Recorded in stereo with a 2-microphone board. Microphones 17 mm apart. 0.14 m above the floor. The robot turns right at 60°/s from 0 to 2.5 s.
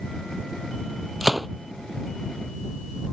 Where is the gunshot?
10° right (ahead or behind); by 1.5 s 5° left (ahead or behind).